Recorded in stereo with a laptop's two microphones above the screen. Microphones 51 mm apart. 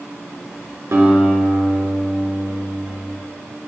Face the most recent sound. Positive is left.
turn(degrees=-65)  # may be behind; listen again after turning